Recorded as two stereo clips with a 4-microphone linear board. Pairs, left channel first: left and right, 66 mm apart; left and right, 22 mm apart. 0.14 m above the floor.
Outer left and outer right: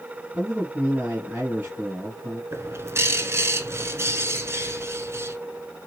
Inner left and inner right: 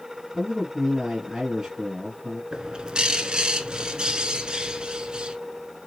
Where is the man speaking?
30° right (ahead or behind), 1.6 m.